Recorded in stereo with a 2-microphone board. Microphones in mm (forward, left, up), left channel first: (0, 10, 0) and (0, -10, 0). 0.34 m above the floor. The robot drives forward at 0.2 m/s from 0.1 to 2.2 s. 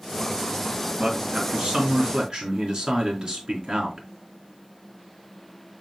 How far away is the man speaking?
About 4 m.